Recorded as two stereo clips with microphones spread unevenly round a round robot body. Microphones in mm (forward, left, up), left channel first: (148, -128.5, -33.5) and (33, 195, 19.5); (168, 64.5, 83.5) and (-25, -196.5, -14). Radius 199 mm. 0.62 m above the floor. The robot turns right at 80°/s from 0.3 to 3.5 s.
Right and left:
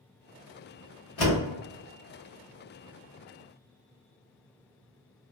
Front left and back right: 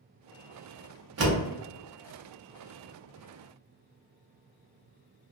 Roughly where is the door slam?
Right.